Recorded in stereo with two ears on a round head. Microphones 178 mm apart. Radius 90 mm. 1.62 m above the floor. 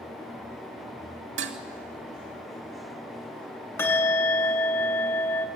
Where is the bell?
15° left (ahead or behind), 4 m.